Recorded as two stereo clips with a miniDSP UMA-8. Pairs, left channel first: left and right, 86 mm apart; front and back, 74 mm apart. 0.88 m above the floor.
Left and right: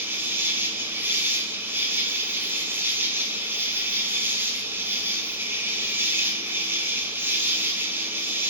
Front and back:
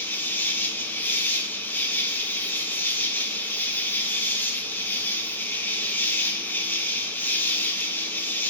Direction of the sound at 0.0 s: 45° right.